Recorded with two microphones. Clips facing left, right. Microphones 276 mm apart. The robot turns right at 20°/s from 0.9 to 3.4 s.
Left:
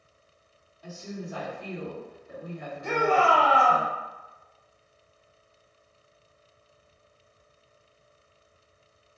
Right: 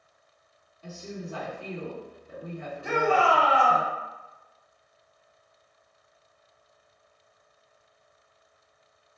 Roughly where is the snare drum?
I don't hear a snare drum.